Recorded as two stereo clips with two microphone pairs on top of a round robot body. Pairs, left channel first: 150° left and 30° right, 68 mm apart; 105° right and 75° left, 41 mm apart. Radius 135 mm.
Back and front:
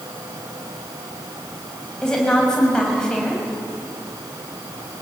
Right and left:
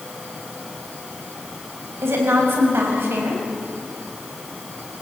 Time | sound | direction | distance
2.0 | a woman speaking | 75° left | 5.5 m